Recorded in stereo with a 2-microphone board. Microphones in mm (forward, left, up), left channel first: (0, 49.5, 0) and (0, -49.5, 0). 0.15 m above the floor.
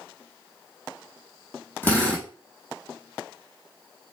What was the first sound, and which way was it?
A drill, 20° left (ahead or behind).